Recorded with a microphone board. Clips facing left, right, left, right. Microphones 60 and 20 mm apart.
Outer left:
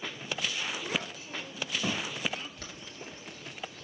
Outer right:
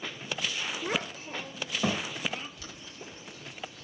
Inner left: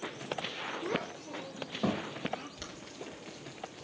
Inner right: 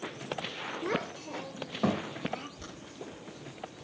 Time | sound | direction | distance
0.8 | a child speaking | 40° right (ahead or behind) | 1.2 m
2.6 | boiling | 50° left (ahead or behind) | 3.5 m